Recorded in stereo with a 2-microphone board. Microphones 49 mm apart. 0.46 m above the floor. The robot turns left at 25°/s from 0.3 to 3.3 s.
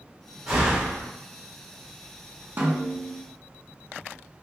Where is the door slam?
10° right (ahead or behind), 1.7 m; by 1.1 s 5° left (ahead or behind), 1.7 m.